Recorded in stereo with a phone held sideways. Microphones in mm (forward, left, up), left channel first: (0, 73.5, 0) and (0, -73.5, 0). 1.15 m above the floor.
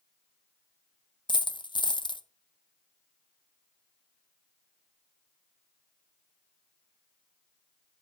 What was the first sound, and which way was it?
A dropped coin, 30° left (ahead or behind).